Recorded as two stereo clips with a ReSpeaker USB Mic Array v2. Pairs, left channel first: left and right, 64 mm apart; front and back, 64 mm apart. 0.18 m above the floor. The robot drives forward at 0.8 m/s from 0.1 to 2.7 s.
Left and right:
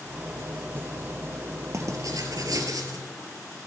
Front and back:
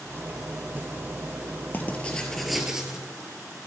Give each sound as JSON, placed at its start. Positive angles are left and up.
{"t": 1.7, "sound": "writing", "azimuth_deg": -60, "distance_m": 1.2}